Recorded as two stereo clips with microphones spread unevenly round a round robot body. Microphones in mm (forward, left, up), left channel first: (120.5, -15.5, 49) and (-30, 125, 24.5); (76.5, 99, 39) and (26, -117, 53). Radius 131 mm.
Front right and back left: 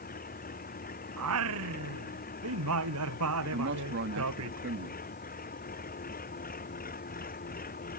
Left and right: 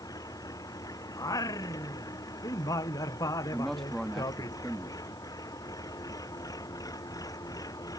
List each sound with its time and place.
0.0 s an engine running: 5° left
1.2 s singing: 155° left
3.5 s a man speaking: 165° left